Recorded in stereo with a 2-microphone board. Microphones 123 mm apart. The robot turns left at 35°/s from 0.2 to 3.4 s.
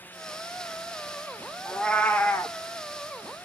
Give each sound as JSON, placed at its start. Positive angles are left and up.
{"t": 1.6, "sound": "a cat meowing", "azimuth_deg": 170, "distance_m": 0.5}